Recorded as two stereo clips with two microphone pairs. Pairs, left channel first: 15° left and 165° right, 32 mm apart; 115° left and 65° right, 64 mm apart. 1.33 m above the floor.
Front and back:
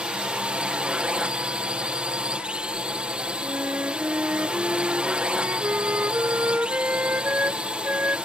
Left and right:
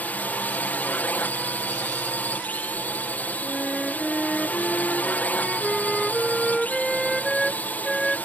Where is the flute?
155° right.